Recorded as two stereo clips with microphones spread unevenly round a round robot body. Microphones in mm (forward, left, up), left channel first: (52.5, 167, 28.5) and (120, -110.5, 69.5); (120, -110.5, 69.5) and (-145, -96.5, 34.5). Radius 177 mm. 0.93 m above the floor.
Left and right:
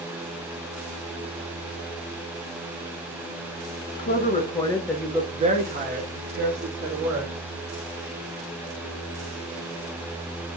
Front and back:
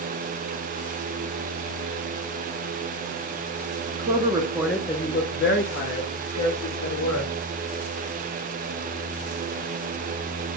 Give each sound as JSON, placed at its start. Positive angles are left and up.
{"t": 4.0, "sound": "a woman speaking", "azimuth_deg": 135, "distance_m": 0.7}